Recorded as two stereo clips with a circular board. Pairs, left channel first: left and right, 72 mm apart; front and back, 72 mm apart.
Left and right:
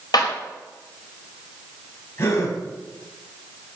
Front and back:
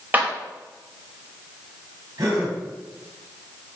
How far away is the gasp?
About 6.5 m.